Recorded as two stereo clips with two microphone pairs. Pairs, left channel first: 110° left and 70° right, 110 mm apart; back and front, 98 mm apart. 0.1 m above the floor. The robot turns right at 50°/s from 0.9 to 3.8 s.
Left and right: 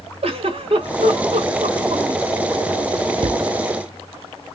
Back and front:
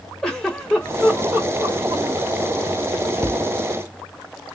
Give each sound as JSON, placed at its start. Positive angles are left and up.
{"t": 0.2, "sound": "a giggle", "azimuth_deg": -95, "distance_m": 2.5}
{"t": 3.2, "sound": "a cupboard door", "azimuth_deg": -60, "distance_m": 0.9}